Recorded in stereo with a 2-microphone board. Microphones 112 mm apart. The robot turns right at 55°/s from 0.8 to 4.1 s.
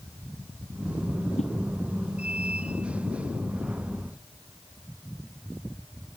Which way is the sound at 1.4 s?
85° left.